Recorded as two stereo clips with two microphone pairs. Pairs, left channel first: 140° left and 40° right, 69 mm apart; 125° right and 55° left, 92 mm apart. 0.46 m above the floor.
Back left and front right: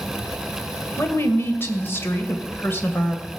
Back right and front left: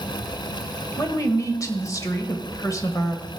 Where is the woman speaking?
170° right, 1.5 m.